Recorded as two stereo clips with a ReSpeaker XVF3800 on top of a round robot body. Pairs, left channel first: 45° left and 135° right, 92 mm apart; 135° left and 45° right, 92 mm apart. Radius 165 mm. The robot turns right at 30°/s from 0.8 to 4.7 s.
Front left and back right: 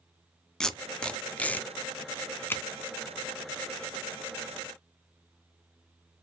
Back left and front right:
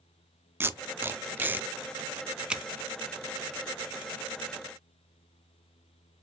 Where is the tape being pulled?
30° right, 0.6 m; by 2.6 s 25° left, 0.6 m.